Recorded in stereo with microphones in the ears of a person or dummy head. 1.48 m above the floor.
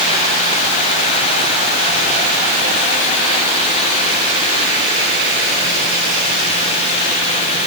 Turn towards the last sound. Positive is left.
No sound to turn to.